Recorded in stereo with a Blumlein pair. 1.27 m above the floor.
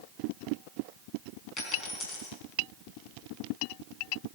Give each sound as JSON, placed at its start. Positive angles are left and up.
{"t": 1.6, "sound": "a dropped coin", "azimuth_deg": 25, "distance_m": 4.5}